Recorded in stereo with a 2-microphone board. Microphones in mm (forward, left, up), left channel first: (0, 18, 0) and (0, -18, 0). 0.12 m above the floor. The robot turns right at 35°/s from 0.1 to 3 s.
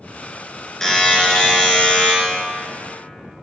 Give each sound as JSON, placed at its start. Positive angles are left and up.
{"t": 0.8, "sound": "a buzzer", "azimuth_deg": 20, "distance_m": 1.4}